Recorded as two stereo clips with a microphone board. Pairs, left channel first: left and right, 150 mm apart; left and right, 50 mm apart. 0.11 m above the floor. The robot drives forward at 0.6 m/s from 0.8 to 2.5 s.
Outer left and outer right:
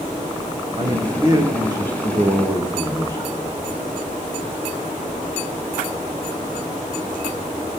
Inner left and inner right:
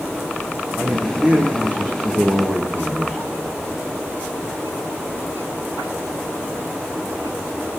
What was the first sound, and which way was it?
A man speaking, 30° right (ahead or behind).